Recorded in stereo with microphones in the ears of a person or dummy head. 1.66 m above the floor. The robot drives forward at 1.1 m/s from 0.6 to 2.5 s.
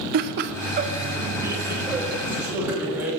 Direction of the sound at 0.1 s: 55° right (ahead or behind).